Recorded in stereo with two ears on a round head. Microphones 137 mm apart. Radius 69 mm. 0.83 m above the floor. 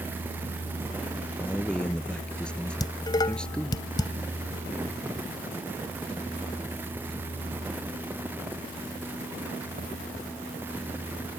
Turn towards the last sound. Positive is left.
turn(degrees=30)  # may be behind; listen again after turning